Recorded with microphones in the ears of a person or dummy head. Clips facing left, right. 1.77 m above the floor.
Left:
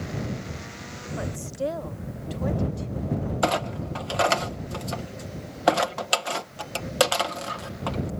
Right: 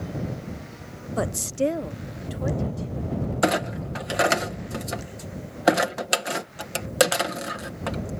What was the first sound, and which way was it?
A woman speaking, 70° right (ahead or behind).